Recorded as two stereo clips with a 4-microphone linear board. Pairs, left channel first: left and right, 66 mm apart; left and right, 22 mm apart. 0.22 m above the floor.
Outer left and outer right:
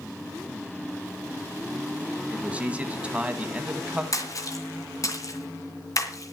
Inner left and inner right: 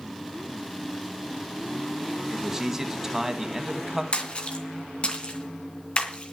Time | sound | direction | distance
2.3 | a man speaking | 20° right (ahead or behind) | 1.8 m
4.1 | a splash | 55° left (ahead or behind) | 3 m